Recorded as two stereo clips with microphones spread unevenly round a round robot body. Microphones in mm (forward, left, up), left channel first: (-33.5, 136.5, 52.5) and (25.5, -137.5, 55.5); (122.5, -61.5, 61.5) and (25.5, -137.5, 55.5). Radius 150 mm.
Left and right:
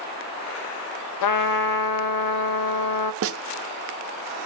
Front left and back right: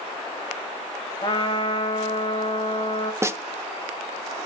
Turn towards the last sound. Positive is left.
turn(degrees=-80)